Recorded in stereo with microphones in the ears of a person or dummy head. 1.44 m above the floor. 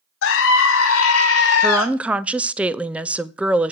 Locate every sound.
0.2 s a scream: 75° left (ahead or behind), 1.7 m; by 1.9 s 80° left, 2 m
1.6 s a woman speaking: 5° right (ahead or behind), 0.6 m